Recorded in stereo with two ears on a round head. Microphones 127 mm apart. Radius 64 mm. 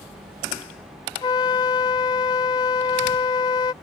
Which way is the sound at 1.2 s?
30° left (ahead or behind).